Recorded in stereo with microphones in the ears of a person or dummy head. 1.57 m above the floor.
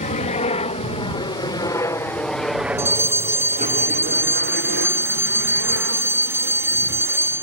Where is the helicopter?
35° left (ahead or behind); by 7.4 s 70° right (ahead or behind).